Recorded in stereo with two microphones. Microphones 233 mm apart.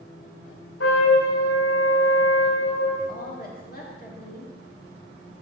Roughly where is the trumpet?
Left.